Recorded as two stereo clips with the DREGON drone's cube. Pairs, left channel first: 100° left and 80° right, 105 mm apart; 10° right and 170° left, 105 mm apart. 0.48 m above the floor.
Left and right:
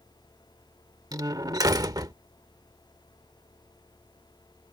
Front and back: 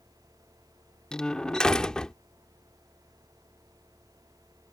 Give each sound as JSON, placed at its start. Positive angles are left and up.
{"t": 1.1, "sound": "a door slam", "azimuth_deg": -90}